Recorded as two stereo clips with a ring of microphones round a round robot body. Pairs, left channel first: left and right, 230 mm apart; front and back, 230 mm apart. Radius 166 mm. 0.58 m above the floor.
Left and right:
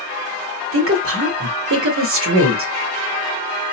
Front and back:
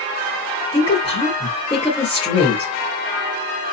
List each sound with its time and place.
0.7 s a woman speaking: 70° right, 1.7 m